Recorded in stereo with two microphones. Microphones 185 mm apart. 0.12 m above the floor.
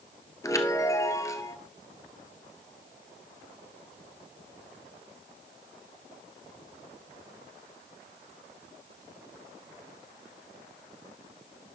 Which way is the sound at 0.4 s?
15° left (ahead or behind).